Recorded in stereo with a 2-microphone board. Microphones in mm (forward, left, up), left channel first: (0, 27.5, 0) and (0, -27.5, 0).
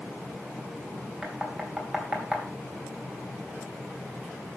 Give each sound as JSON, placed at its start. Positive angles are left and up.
{"t": 1.2, "sound": "knocking", "side_deg": -5, "distance_m": 3.5}